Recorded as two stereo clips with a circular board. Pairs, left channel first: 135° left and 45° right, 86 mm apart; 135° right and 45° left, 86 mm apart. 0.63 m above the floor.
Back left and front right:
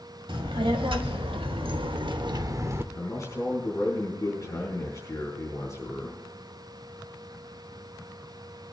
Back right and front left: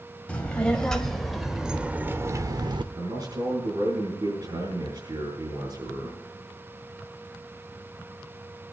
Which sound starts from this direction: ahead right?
A child speaking, at 0.3 s.